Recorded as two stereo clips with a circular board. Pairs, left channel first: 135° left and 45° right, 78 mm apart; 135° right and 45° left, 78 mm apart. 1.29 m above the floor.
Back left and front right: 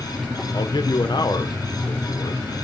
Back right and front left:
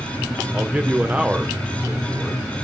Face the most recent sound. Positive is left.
turn(degrees=120)